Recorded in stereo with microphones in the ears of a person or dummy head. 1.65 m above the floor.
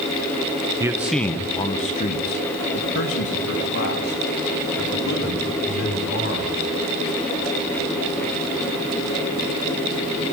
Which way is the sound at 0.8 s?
15° right (ahead or behind).